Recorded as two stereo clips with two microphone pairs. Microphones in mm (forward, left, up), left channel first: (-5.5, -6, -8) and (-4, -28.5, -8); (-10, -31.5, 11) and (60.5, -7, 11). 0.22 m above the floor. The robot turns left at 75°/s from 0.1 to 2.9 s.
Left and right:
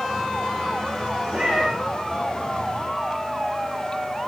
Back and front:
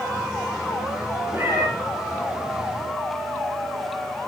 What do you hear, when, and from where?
1.3 s a cat meowing: 30° right, 8 m; by 1.7 s 55° right, 8 m